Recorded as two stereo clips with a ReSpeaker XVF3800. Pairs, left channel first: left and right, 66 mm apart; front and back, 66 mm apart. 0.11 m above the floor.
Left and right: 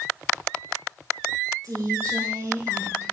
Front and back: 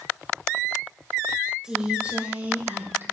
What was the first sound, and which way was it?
A woman speaking, 100° right.